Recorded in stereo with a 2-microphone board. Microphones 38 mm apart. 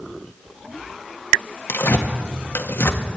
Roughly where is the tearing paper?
Left.